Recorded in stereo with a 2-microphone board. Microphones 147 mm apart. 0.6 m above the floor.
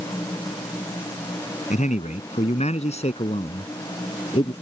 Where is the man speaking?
55° left (ahead or behind); by 4.5 s 40° left (ahead or behind).